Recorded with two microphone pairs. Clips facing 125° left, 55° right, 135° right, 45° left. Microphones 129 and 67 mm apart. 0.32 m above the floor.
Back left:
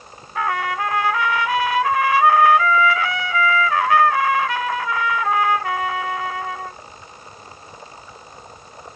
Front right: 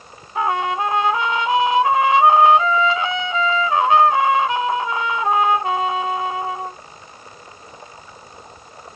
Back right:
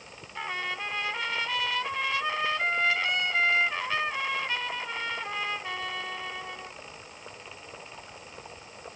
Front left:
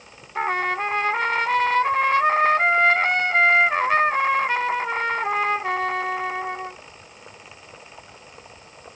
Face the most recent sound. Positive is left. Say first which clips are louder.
# front right 3 dB, front left 11 dB
turn(degrees=10)